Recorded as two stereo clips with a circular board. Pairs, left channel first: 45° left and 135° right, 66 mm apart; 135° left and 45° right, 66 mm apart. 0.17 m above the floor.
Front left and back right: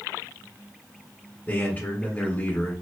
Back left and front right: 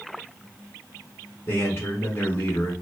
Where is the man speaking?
100° left, 1.5 m.